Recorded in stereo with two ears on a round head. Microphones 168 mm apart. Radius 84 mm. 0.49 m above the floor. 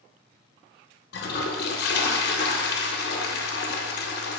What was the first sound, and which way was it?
A toilet flushing, 60° left (ahead or behind).